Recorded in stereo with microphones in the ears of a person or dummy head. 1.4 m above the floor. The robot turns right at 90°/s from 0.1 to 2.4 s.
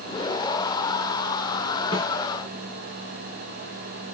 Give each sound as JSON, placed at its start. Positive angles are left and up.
{"t": 1.9, "sound": "a snare drum", "side_deg": 30, "distance_m": 6.0}